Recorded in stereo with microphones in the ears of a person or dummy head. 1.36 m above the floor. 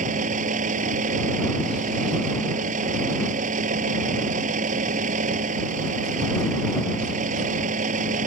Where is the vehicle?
50° right (ahead or behind).